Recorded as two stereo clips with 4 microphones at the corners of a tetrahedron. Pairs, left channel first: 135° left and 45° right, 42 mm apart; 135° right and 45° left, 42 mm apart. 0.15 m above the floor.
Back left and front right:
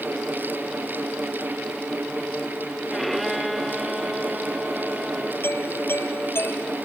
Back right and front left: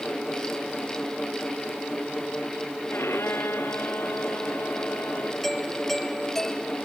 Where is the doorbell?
145° left.